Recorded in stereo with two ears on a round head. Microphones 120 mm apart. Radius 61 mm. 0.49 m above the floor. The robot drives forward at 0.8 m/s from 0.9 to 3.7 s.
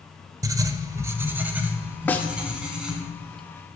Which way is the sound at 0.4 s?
25° right (ahead or behind).